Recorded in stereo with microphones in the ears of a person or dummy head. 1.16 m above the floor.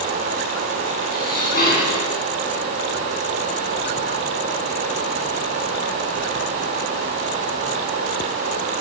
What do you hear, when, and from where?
1.1 s dishes clattering: 50° left (ahead or behind), 9 m